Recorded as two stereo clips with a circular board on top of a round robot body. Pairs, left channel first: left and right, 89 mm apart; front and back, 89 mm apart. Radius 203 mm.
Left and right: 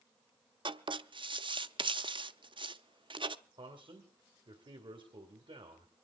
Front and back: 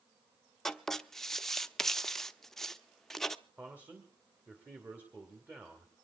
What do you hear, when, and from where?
0.7 s writing: 85° right, 0.8 m
3.6 s a man speaking: 110° right, 2 m